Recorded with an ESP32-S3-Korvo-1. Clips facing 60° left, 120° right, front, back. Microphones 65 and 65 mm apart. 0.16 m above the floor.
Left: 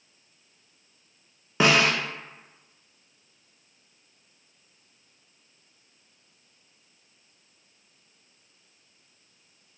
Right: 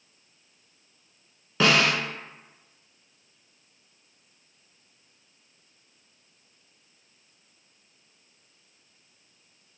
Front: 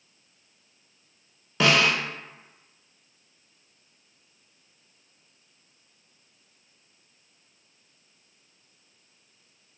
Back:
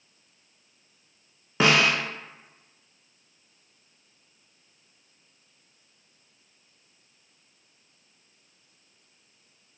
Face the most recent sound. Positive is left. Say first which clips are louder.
# left 1 dB, even
turn(degrees=125)